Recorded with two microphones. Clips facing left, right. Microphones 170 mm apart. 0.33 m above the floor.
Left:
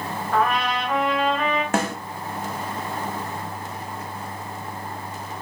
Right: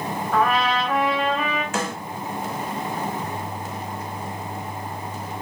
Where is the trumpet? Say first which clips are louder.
Right 1 dB; centre (ahead or behind), 1.6 m.